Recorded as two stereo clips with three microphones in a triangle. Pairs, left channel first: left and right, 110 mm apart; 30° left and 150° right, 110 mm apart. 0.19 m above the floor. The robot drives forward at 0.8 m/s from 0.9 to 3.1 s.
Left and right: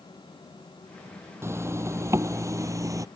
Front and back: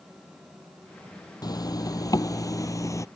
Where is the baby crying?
No baby crying in this recording.